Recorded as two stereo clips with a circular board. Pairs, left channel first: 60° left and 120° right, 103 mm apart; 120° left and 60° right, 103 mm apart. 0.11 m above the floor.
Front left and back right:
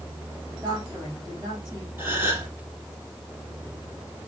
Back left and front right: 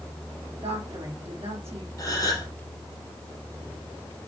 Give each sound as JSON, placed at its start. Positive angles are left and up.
{"t": 0.6, "sound": "a woman speaking", "azimuth_deg": -75, "distance_m": 4.5}
{"t": 2.0, "sound": "a gasp", "azimuth_deg": 175, "distance_m": 2.5}